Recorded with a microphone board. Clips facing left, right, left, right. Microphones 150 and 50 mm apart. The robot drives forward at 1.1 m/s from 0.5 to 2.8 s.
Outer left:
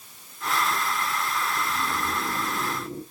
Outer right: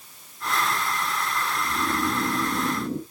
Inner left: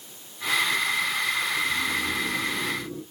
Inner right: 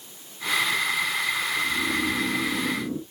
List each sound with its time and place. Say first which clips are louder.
1.6 s snoring: outer right 3 dB, inner right 1 dB; 45° right (ahead or behind), 3.5 m; by 3.0 s 65° right (ahead or behind), 2.5 m